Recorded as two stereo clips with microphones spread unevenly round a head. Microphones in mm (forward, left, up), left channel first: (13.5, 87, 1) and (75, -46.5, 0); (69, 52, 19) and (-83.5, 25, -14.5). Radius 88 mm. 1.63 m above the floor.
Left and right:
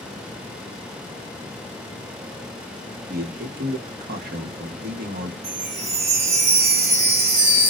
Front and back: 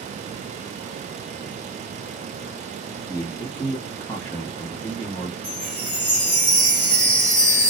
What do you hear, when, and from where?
3.1 s a man speaking: 55° right, 1.1 m
5.4 s a chime: 55° right, 1.6 m